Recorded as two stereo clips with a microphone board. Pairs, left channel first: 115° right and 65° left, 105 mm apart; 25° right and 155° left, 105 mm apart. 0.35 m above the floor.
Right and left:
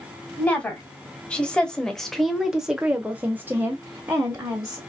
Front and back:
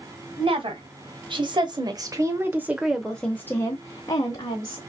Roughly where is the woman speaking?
Behind.